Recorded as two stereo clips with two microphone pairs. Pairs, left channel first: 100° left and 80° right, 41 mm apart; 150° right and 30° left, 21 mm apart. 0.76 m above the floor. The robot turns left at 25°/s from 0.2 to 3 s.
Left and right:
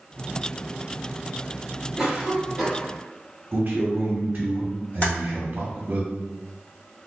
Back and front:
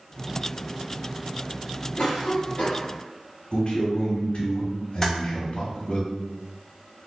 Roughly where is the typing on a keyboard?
Behind left.